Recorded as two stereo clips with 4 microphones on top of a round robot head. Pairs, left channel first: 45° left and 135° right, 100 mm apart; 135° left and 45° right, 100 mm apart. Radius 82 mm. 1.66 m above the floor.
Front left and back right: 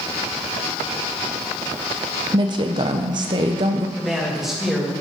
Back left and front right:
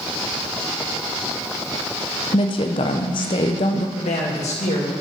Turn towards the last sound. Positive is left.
turn(degrees=140)